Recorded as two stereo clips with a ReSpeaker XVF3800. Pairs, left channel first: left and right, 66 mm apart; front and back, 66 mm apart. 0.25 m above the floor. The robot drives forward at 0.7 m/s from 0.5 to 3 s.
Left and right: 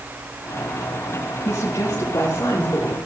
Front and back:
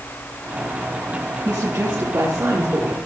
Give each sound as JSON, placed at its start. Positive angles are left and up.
{"t": 1.4, "sound": "a woman speaking", "azimuth_deg": 140, "distance_m": 5.5}